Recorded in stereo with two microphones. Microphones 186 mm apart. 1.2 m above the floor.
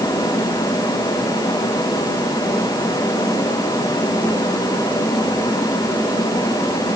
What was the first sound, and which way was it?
Only background noise.